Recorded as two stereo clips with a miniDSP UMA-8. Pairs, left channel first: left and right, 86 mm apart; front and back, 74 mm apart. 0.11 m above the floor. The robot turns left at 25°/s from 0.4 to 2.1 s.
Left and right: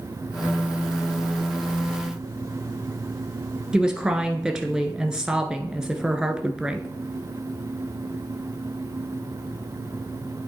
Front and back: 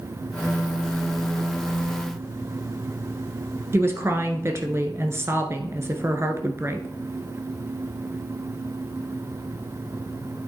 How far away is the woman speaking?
About 1.3 m.